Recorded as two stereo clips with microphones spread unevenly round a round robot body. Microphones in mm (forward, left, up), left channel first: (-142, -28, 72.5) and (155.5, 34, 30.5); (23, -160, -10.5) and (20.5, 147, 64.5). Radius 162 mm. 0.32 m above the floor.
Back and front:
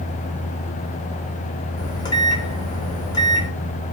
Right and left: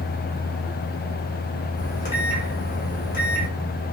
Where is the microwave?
90° right, 1.3 m.